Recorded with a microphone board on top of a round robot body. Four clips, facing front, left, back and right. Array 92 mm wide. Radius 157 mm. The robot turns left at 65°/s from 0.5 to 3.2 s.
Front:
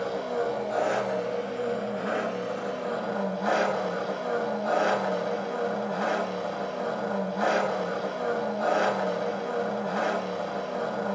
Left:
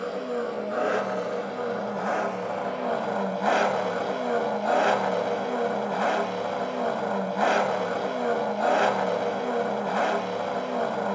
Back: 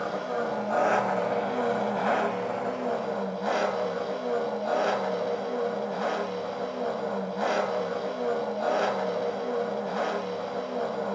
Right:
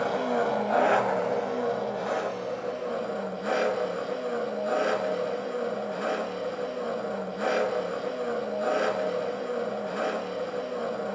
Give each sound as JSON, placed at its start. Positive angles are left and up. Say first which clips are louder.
{"t": 0.0, "sound": "an engine running", "louder": "right 3 dB, front 1 dB", "azimuth_deg": -95, "distance_m": 2.0}